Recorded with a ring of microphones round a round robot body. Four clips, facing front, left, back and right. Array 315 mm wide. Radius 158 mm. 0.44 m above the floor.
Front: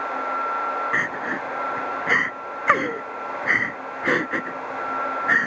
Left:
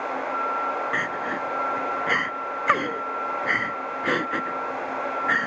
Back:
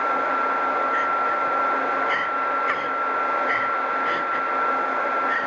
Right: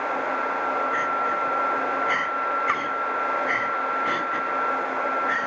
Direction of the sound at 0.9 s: 25° left.